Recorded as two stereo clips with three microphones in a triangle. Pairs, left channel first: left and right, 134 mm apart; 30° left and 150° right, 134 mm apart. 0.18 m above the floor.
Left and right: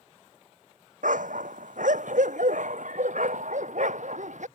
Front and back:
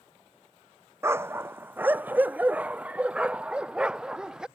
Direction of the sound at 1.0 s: 80° right.